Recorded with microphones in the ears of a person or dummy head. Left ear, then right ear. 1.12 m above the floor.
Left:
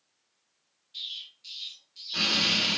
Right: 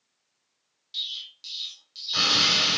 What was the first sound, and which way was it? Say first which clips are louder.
An explosion: right 5 dB; 60° right (ahead or behind).